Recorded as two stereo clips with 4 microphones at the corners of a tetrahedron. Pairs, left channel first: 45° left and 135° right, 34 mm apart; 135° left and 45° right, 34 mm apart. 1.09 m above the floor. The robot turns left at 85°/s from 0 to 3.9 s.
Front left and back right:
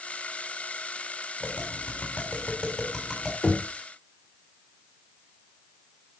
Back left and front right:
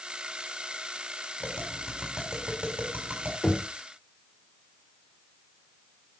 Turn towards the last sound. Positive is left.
turn(degrees=30)